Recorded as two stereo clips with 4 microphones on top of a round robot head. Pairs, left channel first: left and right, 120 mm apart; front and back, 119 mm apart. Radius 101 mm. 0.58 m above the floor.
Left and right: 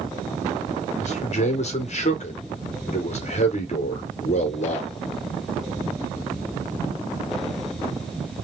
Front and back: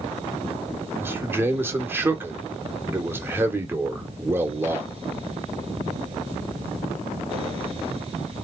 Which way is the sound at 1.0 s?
110° left.